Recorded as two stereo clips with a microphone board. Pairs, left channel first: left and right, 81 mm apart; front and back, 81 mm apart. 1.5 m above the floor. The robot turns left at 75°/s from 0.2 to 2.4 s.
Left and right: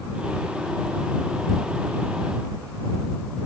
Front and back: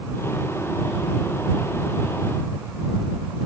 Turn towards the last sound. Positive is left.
No sound to turn to.